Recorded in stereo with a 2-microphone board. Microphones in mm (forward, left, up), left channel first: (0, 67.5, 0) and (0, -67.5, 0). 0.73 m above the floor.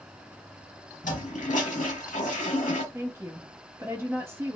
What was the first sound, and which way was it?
A toilet flushing, 70° left (ahead or behind).